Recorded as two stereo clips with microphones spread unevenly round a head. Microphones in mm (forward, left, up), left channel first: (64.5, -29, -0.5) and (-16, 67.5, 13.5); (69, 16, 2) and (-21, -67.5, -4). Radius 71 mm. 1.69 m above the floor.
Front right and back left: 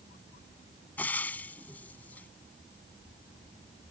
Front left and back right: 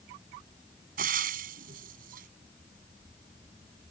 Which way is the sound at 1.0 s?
130° right.